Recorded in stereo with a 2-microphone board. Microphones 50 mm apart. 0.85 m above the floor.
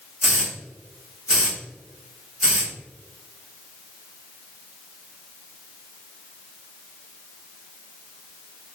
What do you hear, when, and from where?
0.2 s a hiss: 10° right (ahead or behind), 0.9 m